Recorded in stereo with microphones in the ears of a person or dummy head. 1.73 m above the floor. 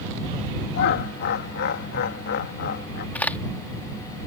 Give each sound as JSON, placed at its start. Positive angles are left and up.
{"t": 0.7, "sound": "laughter", "side_deg": 55}
{"t": 3.1, "sound": "a crack", "side_deg": 10}